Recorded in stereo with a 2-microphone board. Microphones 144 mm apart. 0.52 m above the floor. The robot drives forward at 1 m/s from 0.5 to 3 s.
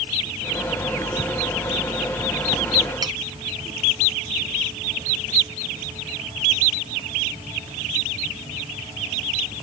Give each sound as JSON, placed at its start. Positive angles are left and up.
{"t": 3.0, "sound": "cutlery clinking", "side_deg": -30}